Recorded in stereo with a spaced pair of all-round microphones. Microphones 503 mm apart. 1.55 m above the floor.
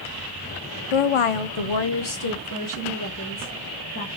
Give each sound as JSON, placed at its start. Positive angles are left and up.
{"t": 0.9, "sound": "a woman speaking", "side_deg": 70, "distance_m": 0.6}